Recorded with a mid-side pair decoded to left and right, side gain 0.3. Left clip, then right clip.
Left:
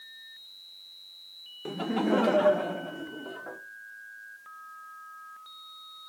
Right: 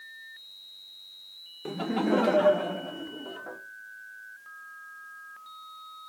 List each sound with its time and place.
1.6 s laughter: straight ahead, 1.1 m; by 3.6 s 10° left, 2 m